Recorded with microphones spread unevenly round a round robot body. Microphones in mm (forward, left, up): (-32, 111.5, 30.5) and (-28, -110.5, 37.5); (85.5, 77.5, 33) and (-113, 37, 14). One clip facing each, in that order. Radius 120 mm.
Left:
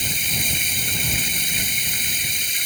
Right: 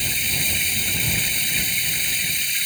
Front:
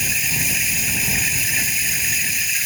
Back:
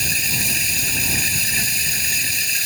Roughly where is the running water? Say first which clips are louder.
Left 1 dB, even; behind left.